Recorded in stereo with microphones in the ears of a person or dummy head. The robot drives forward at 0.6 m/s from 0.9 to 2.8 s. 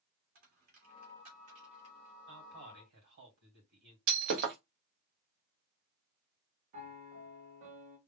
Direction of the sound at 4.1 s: 50° right (ahead or behind).